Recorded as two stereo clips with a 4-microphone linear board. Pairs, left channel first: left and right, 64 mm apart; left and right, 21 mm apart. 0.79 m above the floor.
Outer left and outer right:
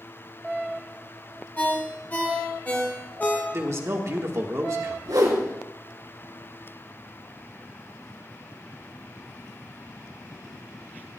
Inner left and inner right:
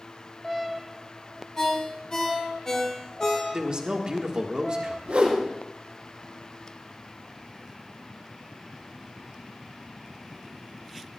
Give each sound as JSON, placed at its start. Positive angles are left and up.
{"t": 1.6, "sound": "a ringtone", "side_deg": 25, "distance_m": 1.7}
{"t": 3.5, "sound": "a man speaking", "side_deg": -50, "distance_m": 1.5}
{"t": 5.0, "sound": "a whoosh", "side_deg": -85, "distance_m": 3.5}